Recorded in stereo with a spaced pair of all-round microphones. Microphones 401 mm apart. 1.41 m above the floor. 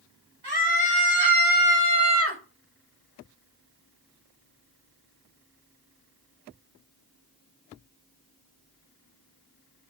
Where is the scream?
70° right (ahead or behind), 3.5 m; by 2.4 s 30° right (ahead or behind), 1.7 m.